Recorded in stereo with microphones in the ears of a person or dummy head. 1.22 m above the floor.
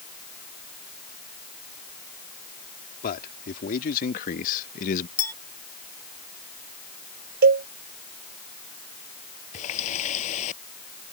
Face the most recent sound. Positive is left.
turn(degrees=40)  # may be behind; listen again after turning